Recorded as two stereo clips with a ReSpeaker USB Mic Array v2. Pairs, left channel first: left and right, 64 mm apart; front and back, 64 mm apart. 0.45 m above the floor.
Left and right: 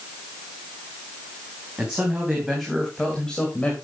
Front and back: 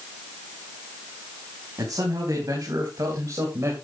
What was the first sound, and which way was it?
A man speaking, 165° right.